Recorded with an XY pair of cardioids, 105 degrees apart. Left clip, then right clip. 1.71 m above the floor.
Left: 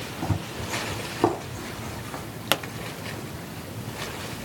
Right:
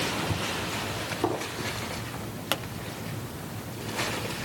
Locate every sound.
0.2 s running footsteps: 40° left, 6 m; by 2.2 s 55° left, 7 m
2.5 s a pop: 35° left, 0.9 m